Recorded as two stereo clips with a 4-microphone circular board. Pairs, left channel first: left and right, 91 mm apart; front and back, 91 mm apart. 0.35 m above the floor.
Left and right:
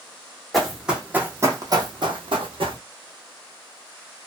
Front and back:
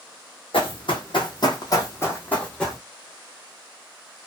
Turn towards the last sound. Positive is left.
turn(degrees=-85)